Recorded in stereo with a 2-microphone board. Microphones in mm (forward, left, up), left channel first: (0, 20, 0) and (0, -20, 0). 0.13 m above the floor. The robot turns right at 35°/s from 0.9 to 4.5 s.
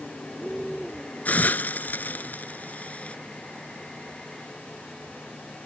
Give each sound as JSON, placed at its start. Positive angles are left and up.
{"t": 1.2, "sound": "a hiss", "side_deg": 40}